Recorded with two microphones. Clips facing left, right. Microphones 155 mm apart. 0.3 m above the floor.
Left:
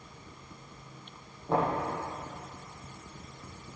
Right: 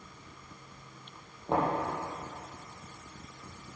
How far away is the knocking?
About 8 m.